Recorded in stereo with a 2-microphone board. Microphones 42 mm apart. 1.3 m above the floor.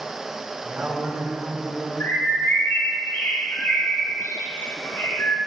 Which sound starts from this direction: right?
A woman speaking, at 0.6 s.